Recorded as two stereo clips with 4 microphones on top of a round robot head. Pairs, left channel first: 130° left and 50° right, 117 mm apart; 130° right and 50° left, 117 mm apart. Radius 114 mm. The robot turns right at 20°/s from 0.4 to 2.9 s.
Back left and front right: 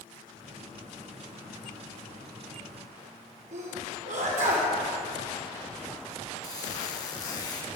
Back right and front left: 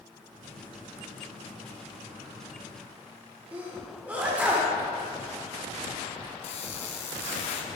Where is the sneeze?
30° right, 3 m.